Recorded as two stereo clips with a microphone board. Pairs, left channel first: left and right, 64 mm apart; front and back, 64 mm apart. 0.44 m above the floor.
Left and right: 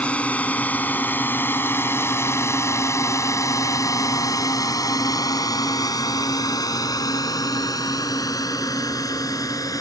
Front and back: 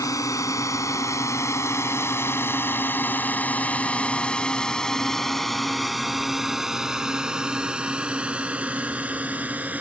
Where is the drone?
25° left; by 9.8 s 115° left.